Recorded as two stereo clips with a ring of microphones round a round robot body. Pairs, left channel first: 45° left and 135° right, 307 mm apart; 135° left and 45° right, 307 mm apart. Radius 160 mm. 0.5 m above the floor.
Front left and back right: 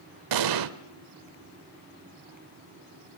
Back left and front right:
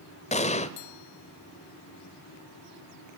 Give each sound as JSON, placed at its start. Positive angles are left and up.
{"t": 0.3, "sound": "an explosion", "azimuth_deg": -155, "distance_m": 1.2}